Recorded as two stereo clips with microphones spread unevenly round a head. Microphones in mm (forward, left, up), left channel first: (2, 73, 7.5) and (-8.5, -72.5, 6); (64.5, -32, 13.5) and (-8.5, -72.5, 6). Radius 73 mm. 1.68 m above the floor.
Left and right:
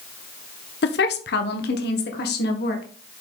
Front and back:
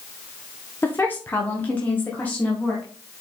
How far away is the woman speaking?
About 1.0 m.